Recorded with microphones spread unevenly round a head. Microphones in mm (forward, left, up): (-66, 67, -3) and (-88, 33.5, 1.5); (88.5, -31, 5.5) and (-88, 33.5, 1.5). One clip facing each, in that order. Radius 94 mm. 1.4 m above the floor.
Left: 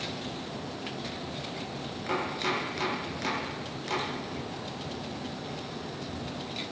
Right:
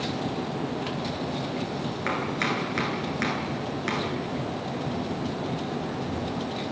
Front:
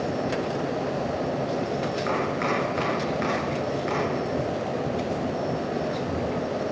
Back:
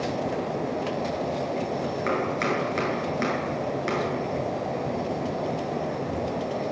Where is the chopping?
150° right, 9 m.